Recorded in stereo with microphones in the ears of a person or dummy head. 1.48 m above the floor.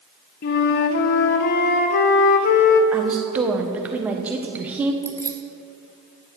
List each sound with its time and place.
0.4 s a flute: 45° left (ahead or behind), 0.7 m
2.9 s a woman speaking: 10° right (ahead or behind), 1.3 m
5.0 s keys jangling: 5° left (ahead or behind), 1.2 m